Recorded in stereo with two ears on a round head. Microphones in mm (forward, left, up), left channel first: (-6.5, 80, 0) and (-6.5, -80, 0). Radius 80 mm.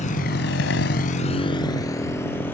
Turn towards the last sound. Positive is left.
turn(degrees=10)  # may be behind; listen again after turning